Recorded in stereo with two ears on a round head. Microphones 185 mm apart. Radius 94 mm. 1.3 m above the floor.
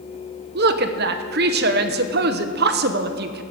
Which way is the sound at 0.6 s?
50° right (ahead or behind).